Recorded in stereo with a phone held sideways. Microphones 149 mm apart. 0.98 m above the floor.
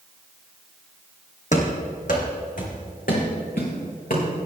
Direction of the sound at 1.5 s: 55° left (ahead or behind).